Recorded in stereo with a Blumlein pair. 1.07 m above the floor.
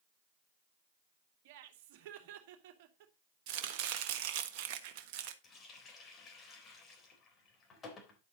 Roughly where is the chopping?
Ahead right.